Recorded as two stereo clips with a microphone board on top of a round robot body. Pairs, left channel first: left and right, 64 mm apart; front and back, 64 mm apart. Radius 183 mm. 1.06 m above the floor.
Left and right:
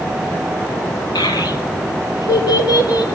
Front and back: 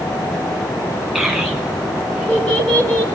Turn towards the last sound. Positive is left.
turn(degrees=65)